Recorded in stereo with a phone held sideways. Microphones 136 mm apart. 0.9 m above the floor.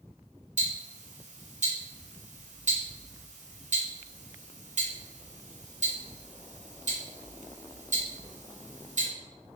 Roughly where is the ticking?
Right.